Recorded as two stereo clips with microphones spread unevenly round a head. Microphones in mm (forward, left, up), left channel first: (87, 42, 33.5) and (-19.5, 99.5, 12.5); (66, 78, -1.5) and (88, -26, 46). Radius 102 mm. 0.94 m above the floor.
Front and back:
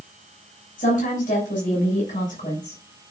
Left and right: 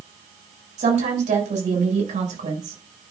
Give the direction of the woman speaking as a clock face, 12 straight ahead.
2 o'clock.